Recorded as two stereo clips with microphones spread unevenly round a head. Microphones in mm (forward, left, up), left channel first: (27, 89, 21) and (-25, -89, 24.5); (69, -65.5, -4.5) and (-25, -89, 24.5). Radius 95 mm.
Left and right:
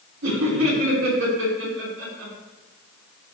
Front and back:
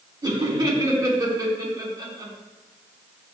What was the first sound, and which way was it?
Laughter, 120° right.